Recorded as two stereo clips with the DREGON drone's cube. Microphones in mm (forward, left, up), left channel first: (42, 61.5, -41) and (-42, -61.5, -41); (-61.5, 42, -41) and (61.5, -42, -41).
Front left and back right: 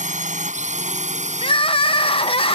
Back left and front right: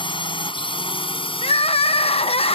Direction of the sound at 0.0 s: 160° right.